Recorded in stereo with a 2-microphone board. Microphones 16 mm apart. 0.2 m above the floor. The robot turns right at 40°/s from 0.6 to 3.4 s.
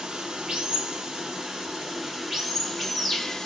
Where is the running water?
80° right, 1.2 m; by 3.5 s 35° left, 1.2 m.